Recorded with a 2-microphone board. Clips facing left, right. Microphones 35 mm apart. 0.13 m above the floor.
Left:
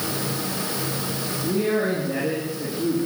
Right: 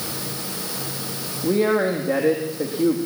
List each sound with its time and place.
1.4 s a man speaking: 60° right (ahead or behind), 4.5 m